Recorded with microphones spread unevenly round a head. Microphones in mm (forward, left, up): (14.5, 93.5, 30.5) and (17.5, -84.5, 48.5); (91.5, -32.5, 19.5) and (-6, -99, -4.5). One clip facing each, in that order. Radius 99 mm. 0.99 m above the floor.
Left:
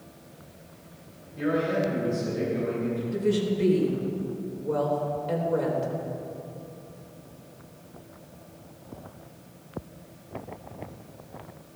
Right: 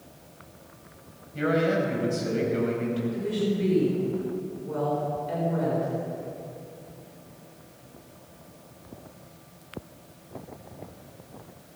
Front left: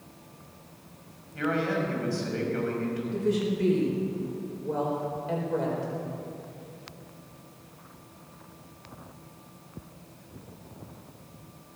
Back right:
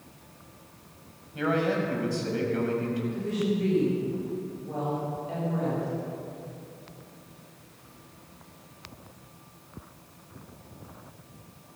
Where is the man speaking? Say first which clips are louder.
Right 2 dB, back right 2 dB; 75° right, 5 m.